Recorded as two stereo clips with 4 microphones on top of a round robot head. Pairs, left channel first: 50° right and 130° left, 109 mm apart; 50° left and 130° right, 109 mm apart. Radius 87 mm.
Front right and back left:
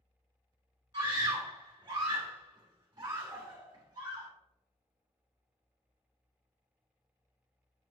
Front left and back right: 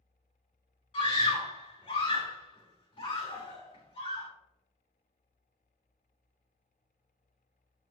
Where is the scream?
75° left, 3 m.